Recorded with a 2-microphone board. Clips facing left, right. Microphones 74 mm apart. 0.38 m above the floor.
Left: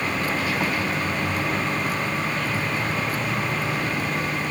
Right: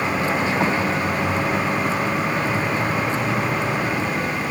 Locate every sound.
0.0 s a vehicle: 25° right (ahead or behind)